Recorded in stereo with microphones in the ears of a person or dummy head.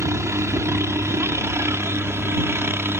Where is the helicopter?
20° right (ahead or behind); by 3.0 s 15° right (ahead or behind).